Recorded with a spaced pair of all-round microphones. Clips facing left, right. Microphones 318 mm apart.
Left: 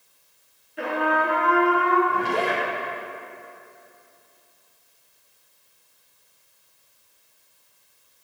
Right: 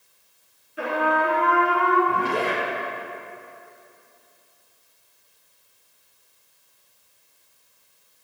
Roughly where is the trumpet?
Centre.